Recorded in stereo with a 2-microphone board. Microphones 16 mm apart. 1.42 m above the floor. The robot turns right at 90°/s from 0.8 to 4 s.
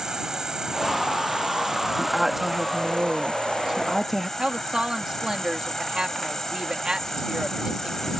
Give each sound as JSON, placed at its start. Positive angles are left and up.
{"t": 0.0, "sound": "an insect", "azimuth_deg": -130}
{"t": 2.0, "sound": "a woman speaking", "azimuth_deg": 180}
{"t": 4.4, "sound": "a woman speaking", "side_deg": -60}